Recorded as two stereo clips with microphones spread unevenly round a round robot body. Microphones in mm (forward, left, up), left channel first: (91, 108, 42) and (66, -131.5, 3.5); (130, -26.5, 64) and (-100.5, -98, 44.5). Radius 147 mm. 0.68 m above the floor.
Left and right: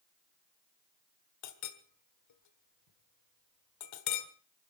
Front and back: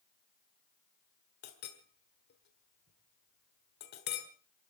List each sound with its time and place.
1.4 s a clink: 75° left, 1.5 m